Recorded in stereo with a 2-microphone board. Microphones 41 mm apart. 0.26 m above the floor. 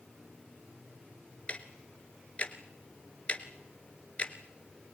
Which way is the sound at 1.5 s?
35° left (ahead or behind).